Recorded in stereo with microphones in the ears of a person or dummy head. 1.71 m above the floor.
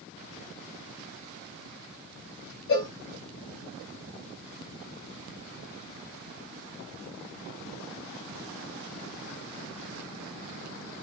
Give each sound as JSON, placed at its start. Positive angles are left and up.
{"t": 2.7, "sound": "a cowbell", "side_deg": 65, "distance_m": 2.5}